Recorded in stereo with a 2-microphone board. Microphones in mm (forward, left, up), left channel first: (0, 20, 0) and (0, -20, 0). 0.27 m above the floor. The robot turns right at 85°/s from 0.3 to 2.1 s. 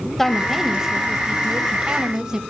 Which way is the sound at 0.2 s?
5° left (ahead or behind).